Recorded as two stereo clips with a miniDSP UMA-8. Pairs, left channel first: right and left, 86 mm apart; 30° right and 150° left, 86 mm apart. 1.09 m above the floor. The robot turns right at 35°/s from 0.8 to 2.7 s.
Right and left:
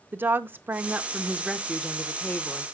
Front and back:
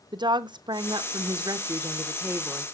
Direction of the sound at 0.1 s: 150° left.